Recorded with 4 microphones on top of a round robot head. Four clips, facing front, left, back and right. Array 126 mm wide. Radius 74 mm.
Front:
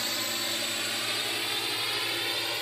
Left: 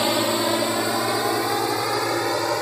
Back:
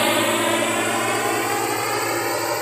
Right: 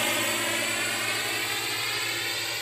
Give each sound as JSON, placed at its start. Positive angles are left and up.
{"t": 0.0, "sound": "a drone", "azimuth_deg": 150}